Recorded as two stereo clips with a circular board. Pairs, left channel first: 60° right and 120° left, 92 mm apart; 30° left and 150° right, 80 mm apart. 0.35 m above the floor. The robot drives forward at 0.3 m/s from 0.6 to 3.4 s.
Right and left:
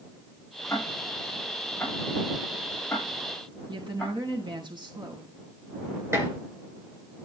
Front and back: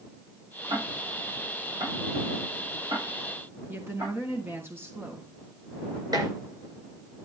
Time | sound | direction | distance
0.7 | ticking | 125° right | 6.5 m
3.7 | a woman speaking | 150° left | 4 m
6.1 | dishes clattering | straight behind | 4 m